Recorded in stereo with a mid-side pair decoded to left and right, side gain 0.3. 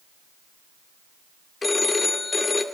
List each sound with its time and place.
1.6 s a phone ringing: 40° left, 2 m